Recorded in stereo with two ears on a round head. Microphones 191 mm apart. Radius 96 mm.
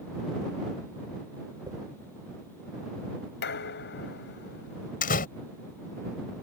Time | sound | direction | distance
1.7 | a dropped coin | 15° right (ahead or behind) | ?
3.4 | dishes clattering | 55° left (ahead or behind) | ?
5.0 | a door slam | 45° left (ahead or behind) | ?